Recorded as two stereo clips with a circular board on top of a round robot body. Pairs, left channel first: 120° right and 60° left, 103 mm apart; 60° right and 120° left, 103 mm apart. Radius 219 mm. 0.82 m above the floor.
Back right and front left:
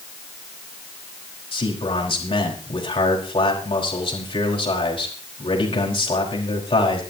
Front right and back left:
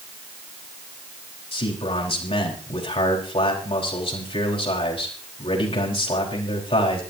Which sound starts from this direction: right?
A man speaking, at 1.5 s.